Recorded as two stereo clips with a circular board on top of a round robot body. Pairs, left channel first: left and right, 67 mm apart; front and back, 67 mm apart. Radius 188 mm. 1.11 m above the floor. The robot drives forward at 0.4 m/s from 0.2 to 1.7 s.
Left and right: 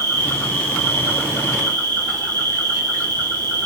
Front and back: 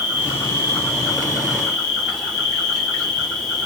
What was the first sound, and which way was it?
An insect, 70° right.